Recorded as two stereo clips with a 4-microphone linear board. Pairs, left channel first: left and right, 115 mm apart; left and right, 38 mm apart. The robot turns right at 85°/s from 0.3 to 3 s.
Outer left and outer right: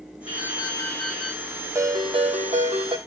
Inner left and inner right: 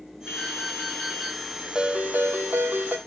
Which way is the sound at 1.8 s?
155° right.